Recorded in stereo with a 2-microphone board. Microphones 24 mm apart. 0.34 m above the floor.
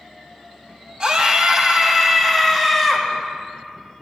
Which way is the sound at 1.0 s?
45° right (ahead or behind).